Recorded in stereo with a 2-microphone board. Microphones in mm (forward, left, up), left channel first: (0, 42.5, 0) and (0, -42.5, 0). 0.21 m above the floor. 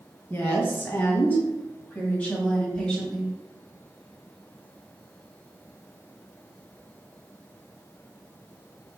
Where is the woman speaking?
25° left (ahead or behind), 1.8 m; by 3.3 s 10° left (ahead or behind), 1.4 m.